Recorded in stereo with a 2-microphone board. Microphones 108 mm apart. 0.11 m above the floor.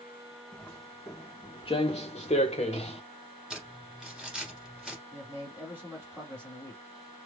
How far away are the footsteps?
About 1.1 m.